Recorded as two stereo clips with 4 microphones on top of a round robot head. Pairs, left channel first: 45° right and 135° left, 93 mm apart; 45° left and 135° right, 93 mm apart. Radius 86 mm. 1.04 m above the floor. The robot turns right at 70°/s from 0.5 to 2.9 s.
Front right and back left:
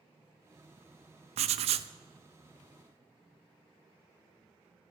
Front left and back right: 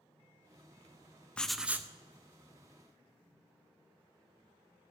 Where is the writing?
125° left, 0.6 m; by 1.9 s 165° left, 0.6 m.